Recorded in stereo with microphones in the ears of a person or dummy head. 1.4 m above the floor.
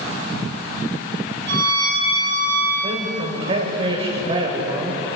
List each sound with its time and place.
1.5 s a violin: 70° right (ahead or behind), 9 m
2.8 s a man speaking: 30° right (ahead or behind), 4.5 m